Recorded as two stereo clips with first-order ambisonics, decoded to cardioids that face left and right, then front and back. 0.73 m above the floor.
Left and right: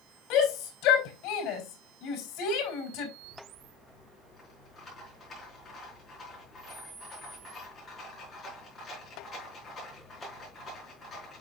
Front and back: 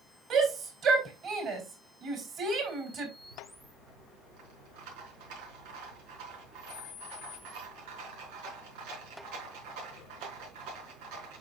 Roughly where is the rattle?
Behind.